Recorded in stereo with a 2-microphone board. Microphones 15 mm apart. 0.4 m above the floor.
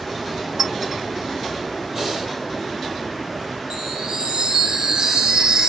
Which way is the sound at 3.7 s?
80° right.